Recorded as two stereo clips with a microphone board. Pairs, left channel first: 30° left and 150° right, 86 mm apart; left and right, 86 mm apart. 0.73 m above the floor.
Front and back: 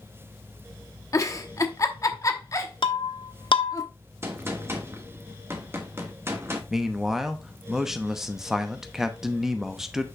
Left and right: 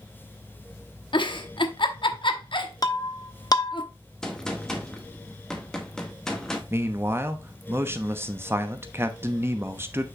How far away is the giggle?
About 0.9 m.